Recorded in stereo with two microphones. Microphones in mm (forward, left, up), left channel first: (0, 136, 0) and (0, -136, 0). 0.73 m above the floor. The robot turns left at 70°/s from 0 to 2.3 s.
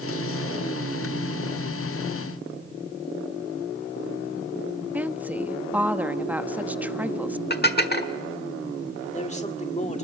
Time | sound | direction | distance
4.9 | a woman speaking | 5° right (ahead or behind) | 1.0 m
7.5 | dishes clattering | 35° left (ahead or behind) | 1.4 m
9.0 | a man speaking | 25° left (ahead or behind) | 1.8 m